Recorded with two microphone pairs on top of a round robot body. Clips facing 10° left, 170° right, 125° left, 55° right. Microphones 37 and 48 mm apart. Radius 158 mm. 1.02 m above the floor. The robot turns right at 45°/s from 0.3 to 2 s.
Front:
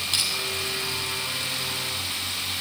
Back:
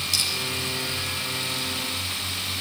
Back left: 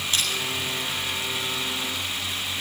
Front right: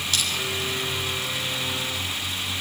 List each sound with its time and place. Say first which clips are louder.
0.1 s crushing: even, back left 1 dB; 65° left, 10 m